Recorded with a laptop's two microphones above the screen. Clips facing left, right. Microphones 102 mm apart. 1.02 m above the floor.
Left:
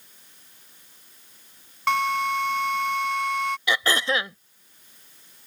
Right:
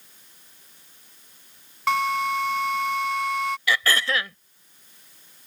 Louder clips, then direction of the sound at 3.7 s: Left 1 dB; 20° left (ahead or behind).